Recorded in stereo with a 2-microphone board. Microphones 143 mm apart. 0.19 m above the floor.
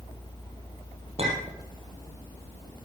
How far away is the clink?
About 3 m.